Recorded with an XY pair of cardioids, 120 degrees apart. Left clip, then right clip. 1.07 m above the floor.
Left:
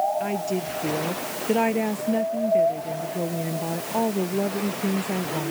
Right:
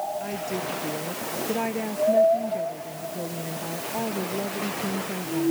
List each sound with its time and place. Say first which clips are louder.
0.2 s a woman speaking: left 3 dB; 30° left